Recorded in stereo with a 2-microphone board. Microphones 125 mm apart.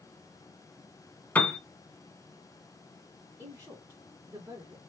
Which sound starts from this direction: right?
A woman speaking, at 3.4 s.